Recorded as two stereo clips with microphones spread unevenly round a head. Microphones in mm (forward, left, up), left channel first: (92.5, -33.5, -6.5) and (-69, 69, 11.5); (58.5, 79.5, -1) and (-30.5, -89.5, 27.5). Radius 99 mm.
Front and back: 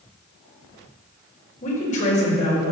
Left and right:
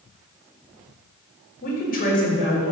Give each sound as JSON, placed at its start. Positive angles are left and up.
{"t": 1.6, "sound": "a woman speaking", "azimuth_deg": 20, "distance_m": 4.0}